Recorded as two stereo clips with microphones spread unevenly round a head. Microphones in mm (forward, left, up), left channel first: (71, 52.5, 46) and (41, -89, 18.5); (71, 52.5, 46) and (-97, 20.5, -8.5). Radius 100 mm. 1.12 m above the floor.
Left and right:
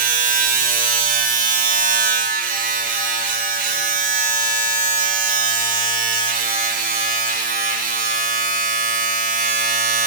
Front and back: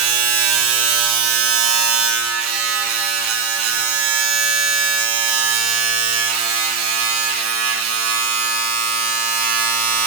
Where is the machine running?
160° right, 2.5 m.